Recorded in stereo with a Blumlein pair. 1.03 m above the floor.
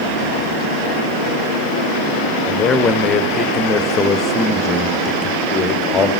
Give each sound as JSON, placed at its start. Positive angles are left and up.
{"t": 2.5, "sound": "a man speaking", "azimuth_deg": 20, "distance_m": 0.6}